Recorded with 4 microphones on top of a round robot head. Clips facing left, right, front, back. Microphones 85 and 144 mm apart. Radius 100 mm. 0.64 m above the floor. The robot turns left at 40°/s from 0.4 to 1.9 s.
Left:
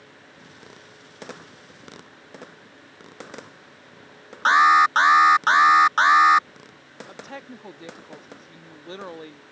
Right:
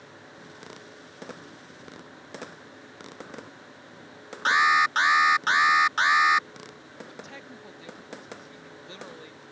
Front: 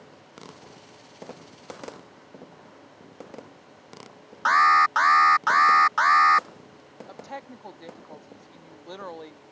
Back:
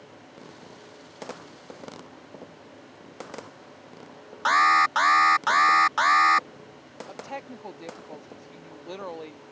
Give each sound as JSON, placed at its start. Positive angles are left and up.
{"t": 4.5, "sound": "an alarm", "azimuth_deg": 125}
{"t": 7.1, "sound": "a woman speaking", "azimuth_deg": 110}